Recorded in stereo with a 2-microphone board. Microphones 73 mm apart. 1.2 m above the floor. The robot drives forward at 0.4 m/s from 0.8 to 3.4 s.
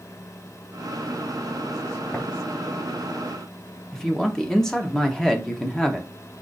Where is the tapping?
20° left (ahead or behind), 1.2 m.